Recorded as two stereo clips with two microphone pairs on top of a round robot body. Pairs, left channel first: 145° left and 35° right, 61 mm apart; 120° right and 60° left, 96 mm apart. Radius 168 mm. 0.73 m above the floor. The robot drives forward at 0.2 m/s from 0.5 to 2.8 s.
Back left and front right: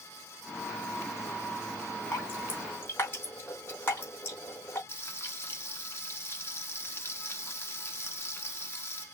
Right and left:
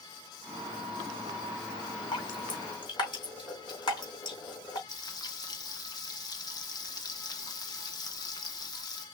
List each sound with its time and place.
2.1 s dripping: 165° right, 3 m
4.9 s frying: 170° right, 1.3 m